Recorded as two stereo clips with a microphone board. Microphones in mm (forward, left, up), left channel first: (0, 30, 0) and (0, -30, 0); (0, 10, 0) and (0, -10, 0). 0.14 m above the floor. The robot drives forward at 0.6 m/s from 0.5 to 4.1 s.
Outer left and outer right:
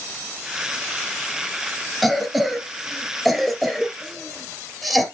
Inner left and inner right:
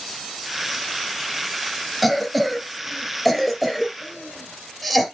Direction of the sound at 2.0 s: 5° left (ahead or behind).